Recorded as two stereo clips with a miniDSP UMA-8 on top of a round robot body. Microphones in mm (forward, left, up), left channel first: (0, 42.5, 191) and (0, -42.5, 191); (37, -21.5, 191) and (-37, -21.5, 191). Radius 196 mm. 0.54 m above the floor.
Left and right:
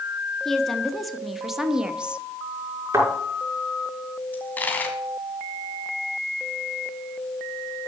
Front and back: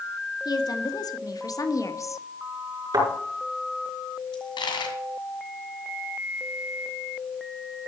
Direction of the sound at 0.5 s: 5° left.